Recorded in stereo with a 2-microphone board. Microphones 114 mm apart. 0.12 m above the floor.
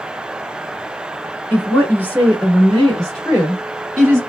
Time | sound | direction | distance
1.5 | a woman speaking | 15° left (ahead or behind) | 1.5 m